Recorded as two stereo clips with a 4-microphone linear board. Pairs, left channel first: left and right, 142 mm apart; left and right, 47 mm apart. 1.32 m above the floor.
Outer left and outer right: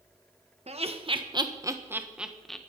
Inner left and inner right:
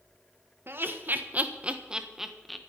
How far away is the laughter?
About 1.7 m.